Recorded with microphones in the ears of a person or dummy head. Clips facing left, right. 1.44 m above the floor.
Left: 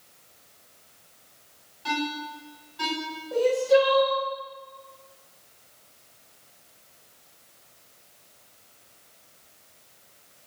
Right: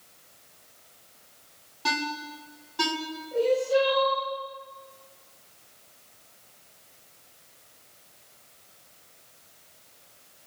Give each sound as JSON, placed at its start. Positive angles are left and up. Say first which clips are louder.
{"t": 1.9, "sound": "a ringtone", "louder": "left 2 dB", "side_deg": -70, "distance_m": 6.0}
{"t": 3.3, "sound": "crying", "louder": "left 3 dB", "side_deg": 65, "distance_m": 9.0}